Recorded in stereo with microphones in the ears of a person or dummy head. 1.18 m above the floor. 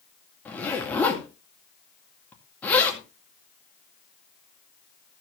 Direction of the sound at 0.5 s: 5° left (ahead or behind).